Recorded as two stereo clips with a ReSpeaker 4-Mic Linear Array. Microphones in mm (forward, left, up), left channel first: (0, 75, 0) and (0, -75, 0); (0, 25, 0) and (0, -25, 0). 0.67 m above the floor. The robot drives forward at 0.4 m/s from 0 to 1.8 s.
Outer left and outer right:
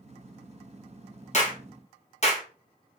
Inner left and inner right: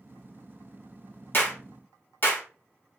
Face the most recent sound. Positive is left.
turn(degrees=50)  # may be behind; listen again after turning